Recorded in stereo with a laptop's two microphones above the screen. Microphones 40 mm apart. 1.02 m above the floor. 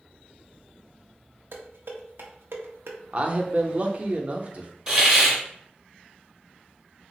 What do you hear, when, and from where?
1.5 s dishes clattering: 75° right (ahead or behind), 0.6 m
3.1 s a man speaking: 35° right (ahead or behind), 0.6 m
4.9 s a hiss: 20° right (ahead or behind), 0.9 m